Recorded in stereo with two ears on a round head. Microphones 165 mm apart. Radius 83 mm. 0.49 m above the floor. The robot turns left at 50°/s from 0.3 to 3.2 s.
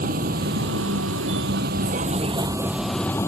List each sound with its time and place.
0.0 s a vehicle: 50° right; by 3.3 s 165° left